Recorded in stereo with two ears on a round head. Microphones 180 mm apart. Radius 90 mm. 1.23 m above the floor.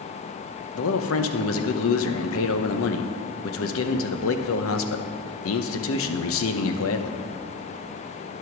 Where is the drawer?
No drawer in this recording.